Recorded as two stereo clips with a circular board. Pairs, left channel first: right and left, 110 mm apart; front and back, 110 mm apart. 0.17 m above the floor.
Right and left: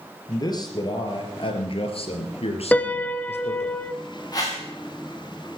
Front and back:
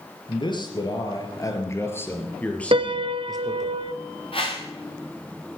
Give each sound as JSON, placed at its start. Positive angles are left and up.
{"t": 0.3, "sound": "a man speaking", "azimuth_deg": -40, "distance_m": 3.0}
{"t": 2.7, "sound": "a piano", "azimuth_deg": -165, "distance_m": 0.6}
{"t": 4.3, "sound": "a whoosh", "azimuth_deg": -35, "distance_m": 6.0}